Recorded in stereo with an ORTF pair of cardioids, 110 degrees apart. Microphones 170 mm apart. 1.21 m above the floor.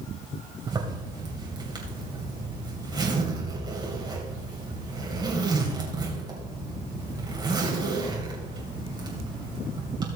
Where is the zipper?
25° right, 3 m.